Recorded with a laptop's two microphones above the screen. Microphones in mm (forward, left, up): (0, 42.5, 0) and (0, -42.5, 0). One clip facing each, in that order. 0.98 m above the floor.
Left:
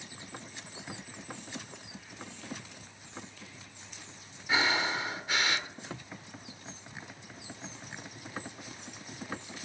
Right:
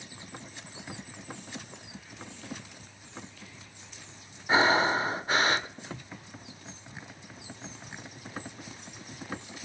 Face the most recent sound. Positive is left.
turn(degrees=-35)  # may be behind; listen again after turning